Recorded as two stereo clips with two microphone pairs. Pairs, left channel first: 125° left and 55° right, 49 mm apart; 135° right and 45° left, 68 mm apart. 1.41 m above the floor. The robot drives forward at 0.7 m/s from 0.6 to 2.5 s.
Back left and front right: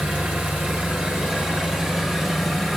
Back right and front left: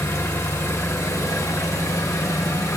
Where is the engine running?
105° right, 2.0 m; by 2.8 s 135° right, 2.5 m.